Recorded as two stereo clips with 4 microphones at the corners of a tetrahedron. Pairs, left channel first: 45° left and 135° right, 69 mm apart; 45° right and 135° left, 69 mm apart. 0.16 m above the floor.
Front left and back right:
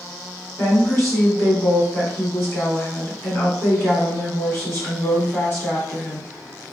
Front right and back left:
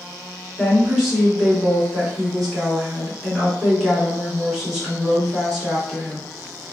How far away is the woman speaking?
About 1.5 m.